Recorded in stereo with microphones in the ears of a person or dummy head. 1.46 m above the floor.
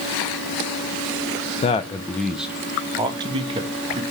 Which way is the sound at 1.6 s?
35° left (ahead or behind).